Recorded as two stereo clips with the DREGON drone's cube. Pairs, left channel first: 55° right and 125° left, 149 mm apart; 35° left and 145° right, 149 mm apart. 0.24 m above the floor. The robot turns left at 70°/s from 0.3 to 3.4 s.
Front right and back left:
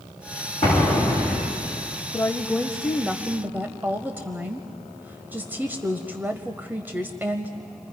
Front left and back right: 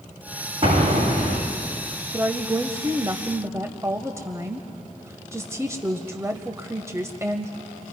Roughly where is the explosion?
Right.